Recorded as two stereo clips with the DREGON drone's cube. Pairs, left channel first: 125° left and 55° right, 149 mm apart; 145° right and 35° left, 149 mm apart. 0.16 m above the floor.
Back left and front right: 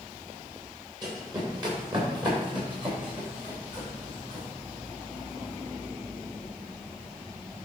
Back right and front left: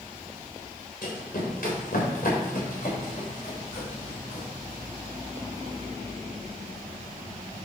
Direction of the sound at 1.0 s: 120° right.